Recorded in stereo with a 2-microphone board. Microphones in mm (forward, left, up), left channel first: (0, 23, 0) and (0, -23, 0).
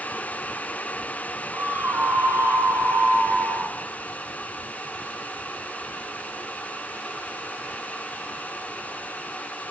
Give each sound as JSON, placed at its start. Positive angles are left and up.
{"t": 1.5, "sound": "a scream", "side_deg": -55, "distance_m": 4.5}